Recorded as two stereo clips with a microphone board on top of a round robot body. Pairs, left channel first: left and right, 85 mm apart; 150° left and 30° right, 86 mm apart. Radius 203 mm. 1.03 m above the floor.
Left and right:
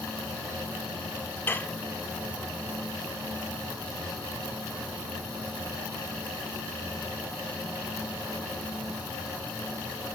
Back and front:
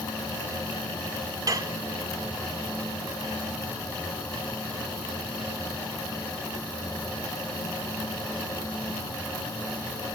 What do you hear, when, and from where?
1.5 s dishes clattering: 20° left, 0.5 m